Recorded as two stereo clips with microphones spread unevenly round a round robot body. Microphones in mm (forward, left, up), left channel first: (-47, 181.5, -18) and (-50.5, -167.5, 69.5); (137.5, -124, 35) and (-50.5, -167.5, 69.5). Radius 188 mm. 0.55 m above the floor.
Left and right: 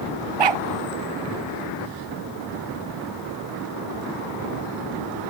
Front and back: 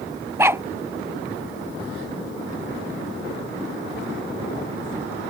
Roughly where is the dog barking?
Right.